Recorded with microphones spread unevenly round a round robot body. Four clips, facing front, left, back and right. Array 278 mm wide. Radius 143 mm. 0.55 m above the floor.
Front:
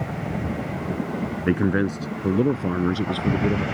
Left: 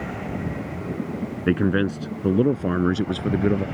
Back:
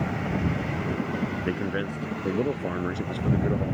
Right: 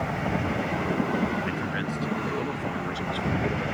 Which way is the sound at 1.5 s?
50° left.